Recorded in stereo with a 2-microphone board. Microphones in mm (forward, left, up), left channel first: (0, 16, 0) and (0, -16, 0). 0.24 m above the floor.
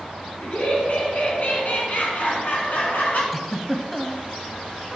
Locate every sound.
0.4 s laughter: 50° left (ahead or behind), 2.5 m; by 3.2 s 65° left (ahead or behind), 3 m
3.3 s a giggle: 5° left (ahead or behind), 0.7 m